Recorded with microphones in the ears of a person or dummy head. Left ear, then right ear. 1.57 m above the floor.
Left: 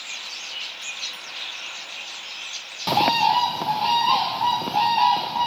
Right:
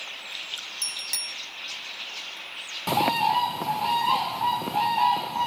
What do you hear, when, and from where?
0.8 s a bicycle bell: 60° right (ahead or behind)
2.9 s a bird: 10° left (ahead or behind)